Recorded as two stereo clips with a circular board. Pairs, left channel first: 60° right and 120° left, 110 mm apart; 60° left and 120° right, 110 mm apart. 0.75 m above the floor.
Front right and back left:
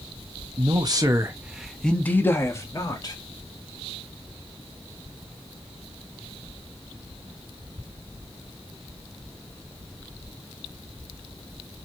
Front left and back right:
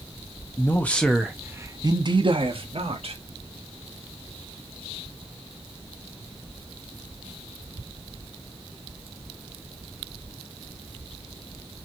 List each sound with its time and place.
0.6 s a man speaking: 115° left, 0.9 m; by 3.1 s 110° right, 1.5 m